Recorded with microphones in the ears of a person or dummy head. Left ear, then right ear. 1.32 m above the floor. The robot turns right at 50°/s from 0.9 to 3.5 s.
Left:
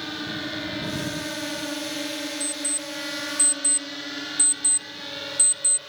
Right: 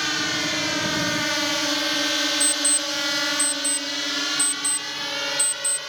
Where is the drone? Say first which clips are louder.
Right 8 dB; 70° right (ahead or behind); by 5.9 s 65° right (ahead or behind).